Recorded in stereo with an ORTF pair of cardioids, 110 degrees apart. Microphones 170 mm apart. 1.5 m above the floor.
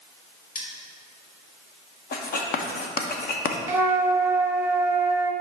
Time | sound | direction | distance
0.6 | cutlery clinking | 60° left | 2.5 m
2.1 | writing | 60° left | 1.2 m
3.7 | a flute | 15° right | 0.8 m